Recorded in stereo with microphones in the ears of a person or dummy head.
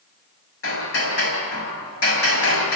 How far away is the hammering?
About 6 m.